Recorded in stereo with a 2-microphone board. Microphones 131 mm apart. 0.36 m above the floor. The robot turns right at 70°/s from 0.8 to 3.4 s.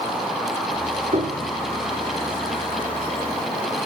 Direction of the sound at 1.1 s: 110° right.